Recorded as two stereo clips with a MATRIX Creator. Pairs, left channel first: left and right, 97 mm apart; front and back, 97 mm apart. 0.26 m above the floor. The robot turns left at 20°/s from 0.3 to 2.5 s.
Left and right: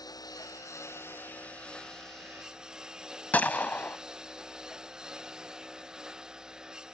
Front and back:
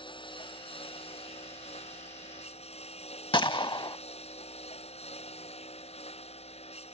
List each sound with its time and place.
0.0 s a lawn mower: 40° left; by 6.9 s 5° right
3.3 s a gunshot: 20° left